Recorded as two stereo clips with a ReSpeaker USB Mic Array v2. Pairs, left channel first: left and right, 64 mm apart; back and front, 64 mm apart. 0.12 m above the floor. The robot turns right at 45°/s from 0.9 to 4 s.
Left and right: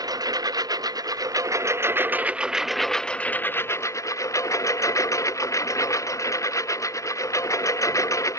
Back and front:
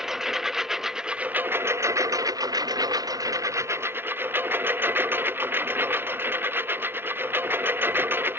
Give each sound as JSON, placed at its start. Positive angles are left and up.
{"t": 0.0, "sound": "a lawn mower", "azimuth_deg": -85}